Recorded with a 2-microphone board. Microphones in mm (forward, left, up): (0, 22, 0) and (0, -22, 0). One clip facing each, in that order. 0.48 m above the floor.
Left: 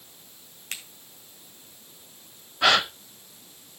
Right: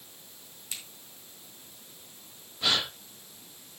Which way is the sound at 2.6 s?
75° left (ahead or behind).